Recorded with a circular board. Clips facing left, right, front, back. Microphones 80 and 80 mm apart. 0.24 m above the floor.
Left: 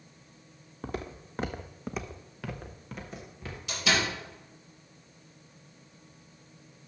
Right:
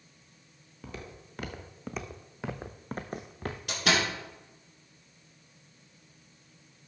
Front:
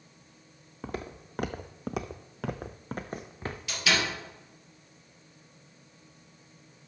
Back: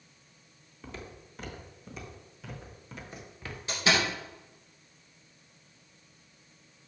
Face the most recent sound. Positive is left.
turn(degrees=-125)